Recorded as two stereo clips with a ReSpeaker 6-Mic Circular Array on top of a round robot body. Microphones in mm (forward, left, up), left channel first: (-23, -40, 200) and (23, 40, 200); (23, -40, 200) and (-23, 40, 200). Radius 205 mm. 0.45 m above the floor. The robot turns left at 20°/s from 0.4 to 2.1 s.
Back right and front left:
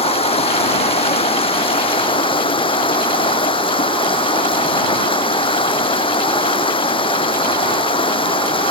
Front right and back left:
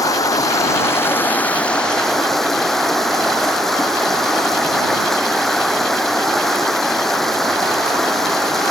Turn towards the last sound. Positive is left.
turn(degrees=-145)